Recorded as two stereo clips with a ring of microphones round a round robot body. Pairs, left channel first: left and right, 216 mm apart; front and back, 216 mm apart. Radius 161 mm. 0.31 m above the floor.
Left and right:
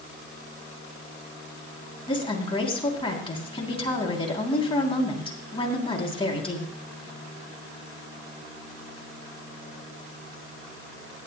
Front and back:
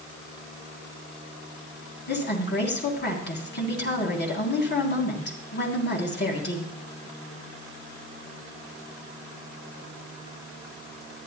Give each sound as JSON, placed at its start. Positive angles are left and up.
{"t": 2.1, "sound": "a woman speaking", "azimuth_deg": 25, "distance_m": 3.0}